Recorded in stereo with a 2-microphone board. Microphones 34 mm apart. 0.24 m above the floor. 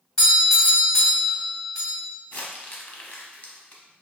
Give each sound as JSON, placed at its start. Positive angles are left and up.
{"t": 0.2, "sound": "a doorbell", "side_deg": 20, "distance_m": 1.9}
{"t": 2.3, "sound": "crumpling", "side_deg": 45, "distance_m": 0.7}